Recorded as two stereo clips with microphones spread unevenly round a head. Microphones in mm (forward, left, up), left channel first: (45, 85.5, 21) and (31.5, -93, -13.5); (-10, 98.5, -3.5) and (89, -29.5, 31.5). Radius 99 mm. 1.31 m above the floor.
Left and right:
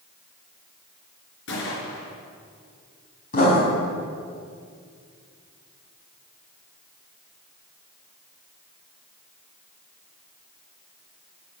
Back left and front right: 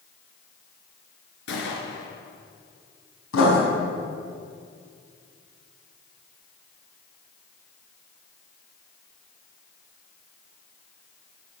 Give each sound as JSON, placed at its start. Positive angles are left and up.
{"t": 1.5, "sound": "a gunshot", "azimuth_deg": 110, "distance_m": 4.0}
{"t": 3.3, "sound": "writing", "azimuth_deg": 140, "distance_m": 5.0}